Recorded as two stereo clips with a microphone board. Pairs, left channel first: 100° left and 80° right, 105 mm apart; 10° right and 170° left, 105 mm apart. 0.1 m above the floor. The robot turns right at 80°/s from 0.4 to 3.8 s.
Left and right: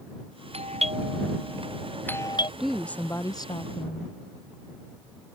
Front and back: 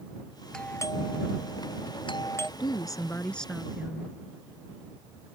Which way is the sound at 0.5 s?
95° right.